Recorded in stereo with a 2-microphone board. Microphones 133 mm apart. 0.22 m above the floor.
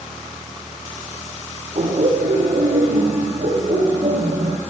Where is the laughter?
65° right (ahead or behind), 6 m.